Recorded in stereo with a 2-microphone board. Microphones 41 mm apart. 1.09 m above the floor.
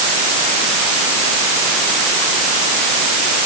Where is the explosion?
No explosion in this recording.